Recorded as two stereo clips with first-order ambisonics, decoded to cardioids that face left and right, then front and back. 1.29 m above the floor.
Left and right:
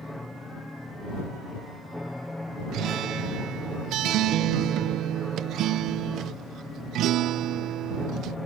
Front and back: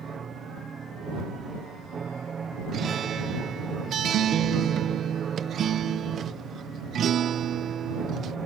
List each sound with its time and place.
0.0 s an aircraft: 165° left
2.7 s a guitar: 125° right